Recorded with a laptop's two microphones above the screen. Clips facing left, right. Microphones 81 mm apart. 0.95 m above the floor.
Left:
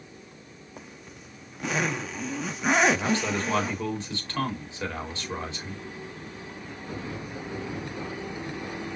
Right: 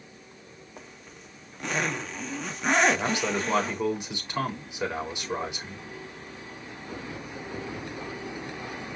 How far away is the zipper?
About 0.6 m.